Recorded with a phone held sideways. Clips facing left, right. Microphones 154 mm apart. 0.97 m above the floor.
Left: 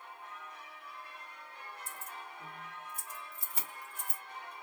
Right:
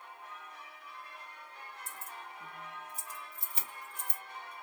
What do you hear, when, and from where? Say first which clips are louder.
1.9 s keys jangling: even; 55° left (ahead or behind), 2.5 m